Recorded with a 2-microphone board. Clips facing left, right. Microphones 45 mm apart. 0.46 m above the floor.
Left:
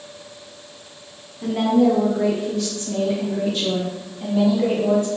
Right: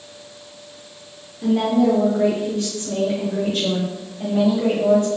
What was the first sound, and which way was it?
A woman speaking, 10° left (ahead or behind).